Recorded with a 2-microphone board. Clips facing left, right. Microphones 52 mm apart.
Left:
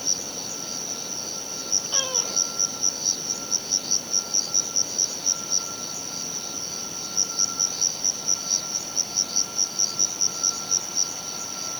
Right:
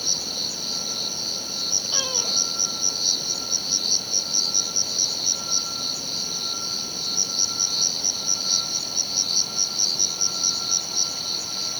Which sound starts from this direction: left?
An insect, at 0.0 s.